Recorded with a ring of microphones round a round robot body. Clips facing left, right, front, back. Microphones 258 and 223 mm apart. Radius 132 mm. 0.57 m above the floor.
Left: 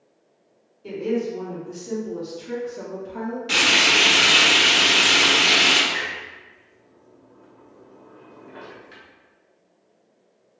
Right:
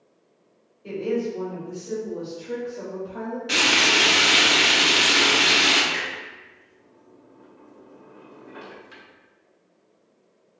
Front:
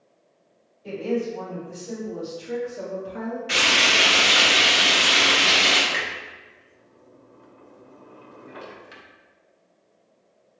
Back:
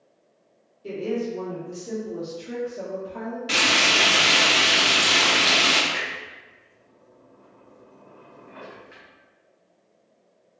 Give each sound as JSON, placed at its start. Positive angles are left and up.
{"t": 0.8, "sound": "a woman speaking", "azimuth_deg": 150, "distance_m": 1.9}
{"t": 3.5, "sound": "frying", "azimuth_deg": 170, "distance_m": 1.2}
{"t": 5.9, "sound": "a clunk", "azimuth_deg": -10, "distance_m": 0.7}